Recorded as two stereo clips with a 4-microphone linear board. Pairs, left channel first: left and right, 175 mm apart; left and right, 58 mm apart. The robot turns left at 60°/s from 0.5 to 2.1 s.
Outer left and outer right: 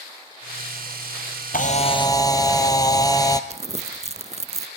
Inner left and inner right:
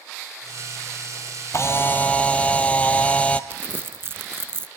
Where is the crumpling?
40° right (ahead or behind), 0.7 m.